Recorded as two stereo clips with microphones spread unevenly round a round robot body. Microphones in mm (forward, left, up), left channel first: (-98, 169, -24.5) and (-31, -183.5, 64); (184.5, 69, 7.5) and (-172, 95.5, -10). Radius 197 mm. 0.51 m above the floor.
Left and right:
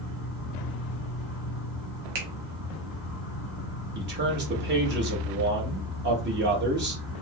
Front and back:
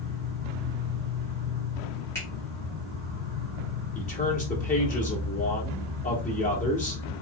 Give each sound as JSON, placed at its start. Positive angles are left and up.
{"t": 0.0, "sound": "an insect", "azimuth_deg": -70, "distance_m": 2.5}
{"t": 2.1, "sound": "a finger snap", "azimuth_deg": -90, "distance_m": 1.1}
{"t": 4.0, "sound": "a man speaking", "azimuth_deg": -30, "distance_m": 0.9}